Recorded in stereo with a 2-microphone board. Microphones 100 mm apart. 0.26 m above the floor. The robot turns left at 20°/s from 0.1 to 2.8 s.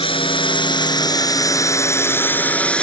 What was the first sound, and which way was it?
A drone, 65° left.